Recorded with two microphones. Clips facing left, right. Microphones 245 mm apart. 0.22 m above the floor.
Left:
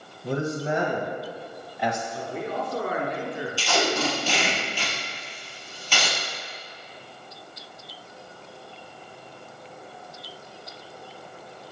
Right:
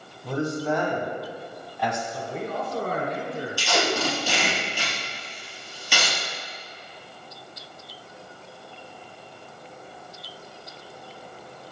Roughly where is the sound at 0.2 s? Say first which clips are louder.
Right 1 dB; left.